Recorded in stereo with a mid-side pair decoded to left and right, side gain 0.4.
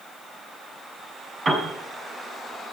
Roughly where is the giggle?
I don't hear a giggle.